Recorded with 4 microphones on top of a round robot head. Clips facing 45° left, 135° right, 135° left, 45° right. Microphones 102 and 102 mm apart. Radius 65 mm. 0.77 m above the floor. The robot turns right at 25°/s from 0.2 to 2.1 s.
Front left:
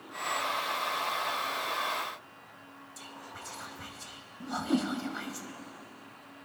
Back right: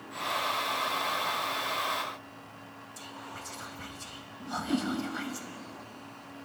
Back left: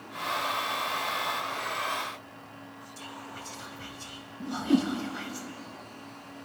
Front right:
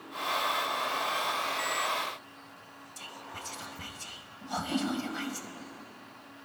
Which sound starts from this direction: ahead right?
Whispering, at 3.0 s.